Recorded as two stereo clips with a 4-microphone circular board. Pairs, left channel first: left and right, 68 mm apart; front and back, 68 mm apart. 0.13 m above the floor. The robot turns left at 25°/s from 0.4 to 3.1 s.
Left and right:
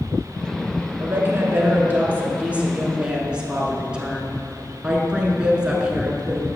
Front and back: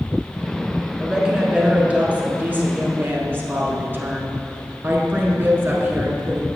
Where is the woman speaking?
105° right, 1.2 m; by 6.5 s 155° right, 1.2 m.